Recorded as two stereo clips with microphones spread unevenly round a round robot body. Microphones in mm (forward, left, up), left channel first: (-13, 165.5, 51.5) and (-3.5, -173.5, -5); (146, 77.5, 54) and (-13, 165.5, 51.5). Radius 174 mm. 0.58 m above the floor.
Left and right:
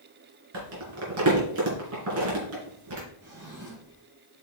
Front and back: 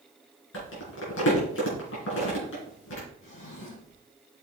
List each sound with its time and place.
0.5 s crumpling: 40° right, 3 m
3.2 s a drawer: 25° right, 3 m